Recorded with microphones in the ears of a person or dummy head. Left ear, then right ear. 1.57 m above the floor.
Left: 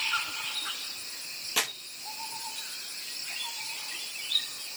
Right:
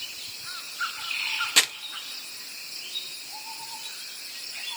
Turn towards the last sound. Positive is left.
turn(degrees=-15)  # may be behind; listen again after turning